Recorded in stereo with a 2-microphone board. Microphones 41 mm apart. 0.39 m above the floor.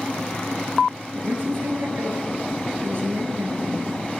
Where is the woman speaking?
55° right (ahead or behind), 7 m.